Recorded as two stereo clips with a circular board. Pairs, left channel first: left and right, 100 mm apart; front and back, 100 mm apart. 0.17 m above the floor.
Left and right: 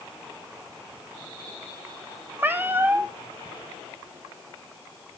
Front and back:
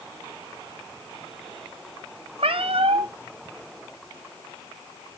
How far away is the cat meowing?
About 0.6 m.